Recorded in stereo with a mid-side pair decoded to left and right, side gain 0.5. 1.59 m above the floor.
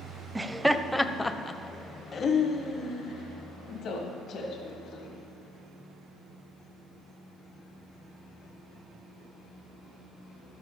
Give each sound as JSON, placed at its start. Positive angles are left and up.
{"t": 0.3, "sound": "laughter", "azimuth_deg": -15, "distance_m": 0.8}